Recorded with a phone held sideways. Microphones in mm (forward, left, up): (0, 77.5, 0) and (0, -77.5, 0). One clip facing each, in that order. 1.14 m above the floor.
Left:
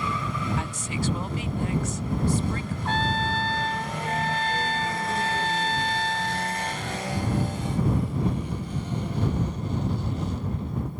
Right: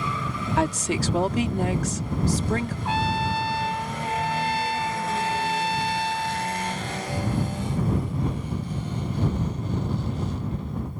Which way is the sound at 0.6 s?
80° right.